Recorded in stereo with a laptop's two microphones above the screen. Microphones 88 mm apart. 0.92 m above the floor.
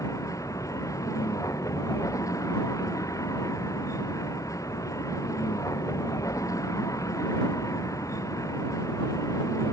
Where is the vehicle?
35° left (ahead or behind).